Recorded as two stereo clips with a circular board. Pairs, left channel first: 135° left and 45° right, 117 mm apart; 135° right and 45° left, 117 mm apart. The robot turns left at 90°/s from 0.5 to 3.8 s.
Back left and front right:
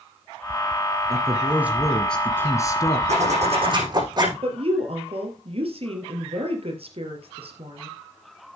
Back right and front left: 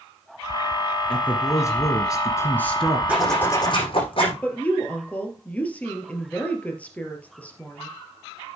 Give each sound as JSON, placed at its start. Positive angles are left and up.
{"t": 1.1, "sound": "a man speaking", "azimuth_deg": -60, "distance_m": 1.6}
{"t": 3.1, "sound": "a zipper", "azimuth_deg": -35, "distance_m": 7.0}
{"t": 4.4, "sound": "a woman speaking", "azimuth_deg": -60, "distance_m": 3.0}